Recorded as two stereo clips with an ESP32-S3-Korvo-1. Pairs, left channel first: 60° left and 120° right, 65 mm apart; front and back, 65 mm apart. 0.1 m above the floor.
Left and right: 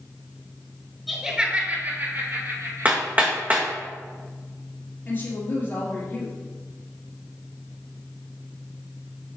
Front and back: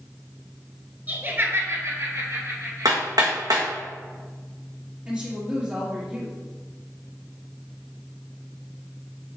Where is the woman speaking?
115° left, 3 m.